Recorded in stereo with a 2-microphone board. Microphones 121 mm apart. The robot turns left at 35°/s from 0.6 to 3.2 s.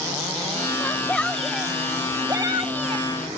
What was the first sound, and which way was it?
A shout, 25° left.